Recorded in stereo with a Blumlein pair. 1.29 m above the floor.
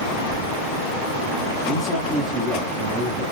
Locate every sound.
1.7 s a man speaking: 20° right, 2 m